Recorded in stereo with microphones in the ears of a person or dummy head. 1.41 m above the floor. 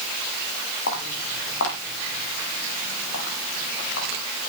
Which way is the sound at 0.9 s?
65° left (ahead or behind).